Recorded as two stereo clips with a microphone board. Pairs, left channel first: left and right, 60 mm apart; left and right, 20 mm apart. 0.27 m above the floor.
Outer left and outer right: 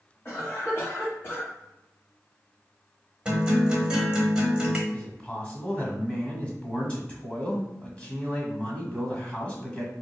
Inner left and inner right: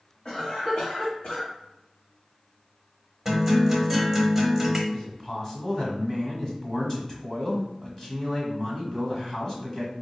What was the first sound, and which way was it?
A cough, 35° left (ahead or behind).